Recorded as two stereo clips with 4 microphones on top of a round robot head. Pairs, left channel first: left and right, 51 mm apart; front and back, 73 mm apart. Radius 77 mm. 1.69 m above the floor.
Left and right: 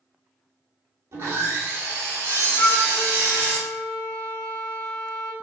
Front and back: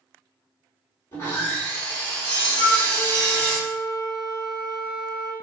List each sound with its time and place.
1.1 s sawing: 65° right, 3 m
2.6 s a flute: 30° left, 1.6 m